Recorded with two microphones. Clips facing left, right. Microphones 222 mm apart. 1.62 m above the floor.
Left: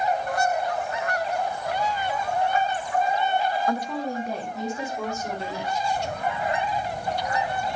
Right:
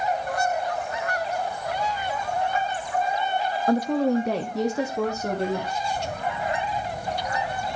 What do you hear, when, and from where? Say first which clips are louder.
3.7 s a woman speaking: right 7 dB; 30° right (ahead or behind), 0.8 m; by 5.8 s 55° right (ahead or behind), 2.0 m